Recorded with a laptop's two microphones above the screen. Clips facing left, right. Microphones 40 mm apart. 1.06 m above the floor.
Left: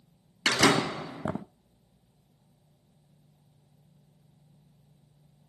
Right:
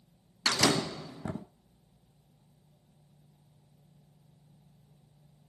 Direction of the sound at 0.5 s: 70° left (ahead or behind).